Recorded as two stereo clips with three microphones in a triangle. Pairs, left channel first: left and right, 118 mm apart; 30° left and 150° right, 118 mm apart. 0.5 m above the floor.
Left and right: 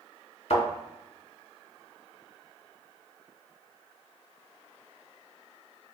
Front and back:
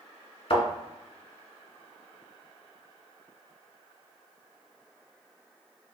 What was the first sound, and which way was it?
A thud, 60° left.